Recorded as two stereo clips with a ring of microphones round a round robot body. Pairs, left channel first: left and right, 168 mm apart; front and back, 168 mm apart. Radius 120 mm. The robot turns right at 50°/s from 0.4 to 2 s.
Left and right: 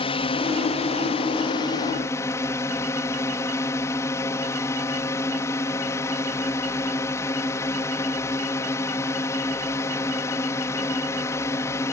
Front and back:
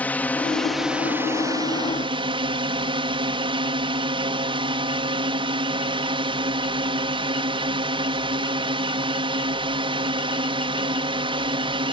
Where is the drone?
75° left; by 11.9 s 155° left.